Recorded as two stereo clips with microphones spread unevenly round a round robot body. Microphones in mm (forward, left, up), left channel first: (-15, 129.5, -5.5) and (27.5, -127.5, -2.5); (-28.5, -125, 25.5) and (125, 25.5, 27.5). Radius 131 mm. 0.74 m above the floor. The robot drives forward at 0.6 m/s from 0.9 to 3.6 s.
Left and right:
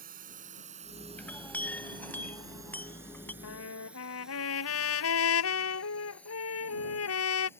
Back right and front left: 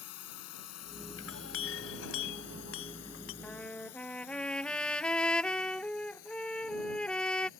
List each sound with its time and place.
0.0 s a drone: 140° right; by 7.6 s straight behind
1.2 s a clink: 175° right
3.4 s a trumpet: 140° left